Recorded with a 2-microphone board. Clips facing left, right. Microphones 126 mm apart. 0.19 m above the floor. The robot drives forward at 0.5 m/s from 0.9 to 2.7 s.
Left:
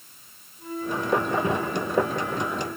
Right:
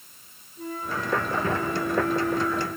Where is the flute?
65° right (ahead or behind), 3.5 m; by 2.7 s 55° right (ahead or behind), 4 m.